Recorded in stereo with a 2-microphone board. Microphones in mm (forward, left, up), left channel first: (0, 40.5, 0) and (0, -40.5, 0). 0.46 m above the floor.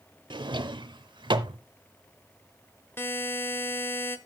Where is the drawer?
75° right (ahead or behind), 0.7 m.